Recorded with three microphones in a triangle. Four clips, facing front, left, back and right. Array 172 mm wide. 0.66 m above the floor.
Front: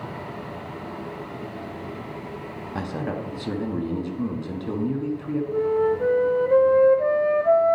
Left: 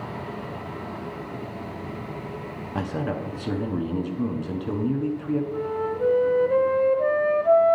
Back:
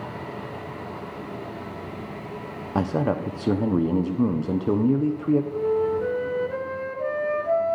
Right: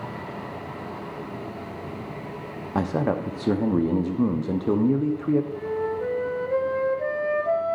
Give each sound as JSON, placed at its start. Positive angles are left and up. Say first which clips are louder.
{"t": 2.8, "sound": "a man speaking", "louder": "right 5 dB, back 6 dB", "azimuth_deg": -135, "distance_m": 0.7}
{"t": 5.5, "sound": "a flute", "louder": "even, front 2 dB", "azimuth_deg": 25, "distance_m": 0.6}